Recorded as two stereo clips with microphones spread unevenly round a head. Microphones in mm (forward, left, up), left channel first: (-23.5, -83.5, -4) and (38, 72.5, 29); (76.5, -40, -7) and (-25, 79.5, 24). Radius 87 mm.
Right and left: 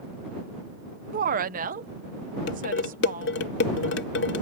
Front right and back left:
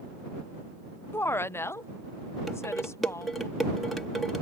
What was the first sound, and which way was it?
A woman speaking, 25° left.